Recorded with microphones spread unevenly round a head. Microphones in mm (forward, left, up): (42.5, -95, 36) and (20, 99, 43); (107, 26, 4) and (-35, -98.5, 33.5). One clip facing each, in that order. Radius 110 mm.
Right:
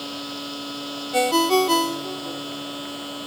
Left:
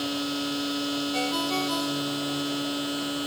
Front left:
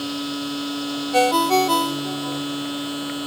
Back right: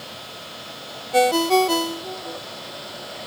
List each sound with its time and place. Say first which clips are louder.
0.0 s a machine running: left 4 dB, front left 14 dB; 25° left
1.1 s a ringtone: right 9 dB, back right 1 dB; 65° right